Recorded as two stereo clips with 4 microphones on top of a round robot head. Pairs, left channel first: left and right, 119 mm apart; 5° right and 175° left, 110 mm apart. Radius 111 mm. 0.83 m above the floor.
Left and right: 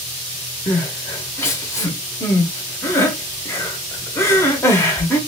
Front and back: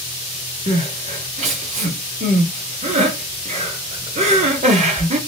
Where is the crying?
160° left, 0.9 m.